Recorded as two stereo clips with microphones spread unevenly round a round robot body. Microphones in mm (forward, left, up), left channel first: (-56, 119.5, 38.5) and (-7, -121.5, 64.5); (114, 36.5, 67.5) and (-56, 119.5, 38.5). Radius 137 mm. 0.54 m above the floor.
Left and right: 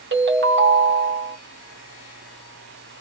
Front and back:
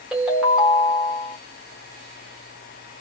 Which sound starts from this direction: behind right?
A ringtone, at 0.1 s.